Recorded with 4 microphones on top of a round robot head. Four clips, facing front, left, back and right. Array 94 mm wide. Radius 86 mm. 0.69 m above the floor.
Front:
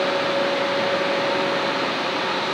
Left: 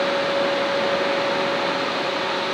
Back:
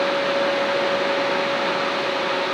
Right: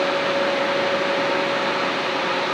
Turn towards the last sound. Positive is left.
No sound to turn to.